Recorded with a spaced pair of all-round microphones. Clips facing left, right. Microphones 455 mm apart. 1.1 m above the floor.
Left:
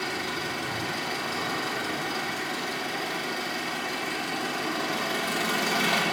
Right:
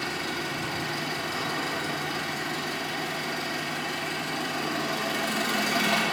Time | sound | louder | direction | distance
0.0 | an engine running | even | 45° right (ahead or behind) | 2.5 m